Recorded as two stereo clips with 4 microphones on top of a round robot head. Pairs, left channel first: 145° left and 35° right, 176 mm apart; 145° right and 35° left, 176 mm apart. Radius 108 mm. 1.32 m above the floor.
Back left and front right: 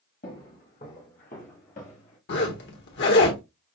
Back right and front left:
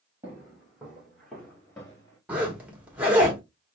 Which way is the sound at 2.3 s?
120° left.